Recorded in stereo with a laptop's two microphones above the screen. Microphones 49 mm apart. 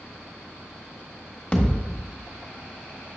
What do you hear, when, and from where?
1.5 s a thud: 25° left (ahead or behind), 1.4 m